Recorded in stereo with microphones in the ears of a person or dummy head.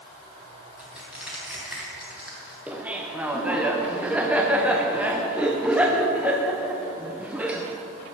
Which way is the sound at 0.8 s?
Centre (ahead or behind).